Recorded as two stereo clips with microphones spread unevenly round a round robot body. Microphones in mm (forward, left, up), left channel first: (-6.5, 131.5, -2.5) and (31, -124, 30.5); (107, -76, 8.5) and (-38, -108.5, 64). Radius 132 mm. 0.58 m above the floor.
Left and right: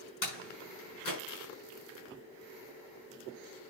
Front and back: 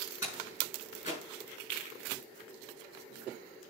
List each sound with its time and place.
0.2 s a door slam: 110° left, 6.5 m